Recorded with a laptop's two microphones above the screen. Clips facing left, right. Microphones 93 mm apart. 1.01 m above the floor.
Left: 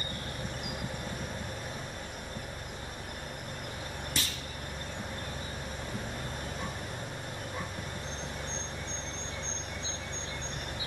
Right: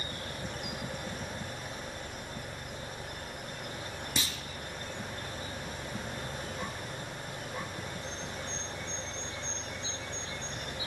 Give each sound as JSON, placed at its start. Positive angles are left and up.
{"t": 4.2, "sound": "a clunk", "side_deg": -15, "distance_m": 0.5}